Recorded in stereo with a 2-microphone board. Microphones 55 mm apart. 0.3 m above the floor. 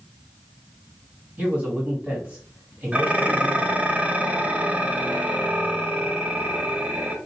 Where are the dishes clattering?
25° right (ahead or behind), 0.6 m.